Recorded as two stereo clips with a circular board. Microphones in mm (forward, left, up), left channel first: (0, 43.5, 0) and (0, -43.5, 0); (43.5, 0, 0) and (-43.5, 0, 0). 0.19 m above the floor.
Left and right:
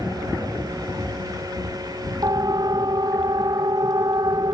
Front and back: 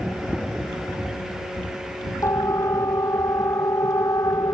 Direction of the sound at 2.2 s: 50° right.